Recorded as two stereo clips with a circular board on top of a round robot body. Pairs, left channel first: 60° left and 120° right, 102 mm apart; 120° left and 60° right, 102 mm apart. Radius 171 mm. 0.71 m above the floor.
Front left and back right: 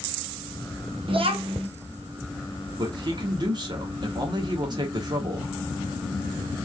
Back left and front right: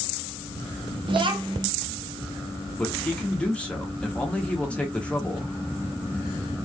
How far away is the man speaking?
About 1.0 m.